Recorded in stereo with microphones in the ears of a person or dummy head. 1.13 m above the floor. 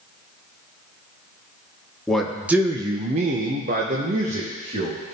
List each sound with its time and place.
2.1 s a man speaking: 5° left (ahead or behind), 1.1 m; by 5.0 s 30° right (ahead or behind), 1.8 m